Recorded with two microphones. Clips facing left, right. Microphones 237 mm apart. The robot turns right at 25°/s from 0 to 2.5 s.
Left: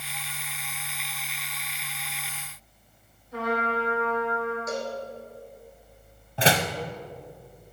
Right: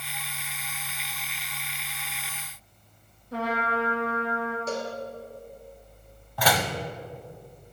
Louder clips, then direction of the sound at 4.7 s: Even; 30° right (ahead or behind).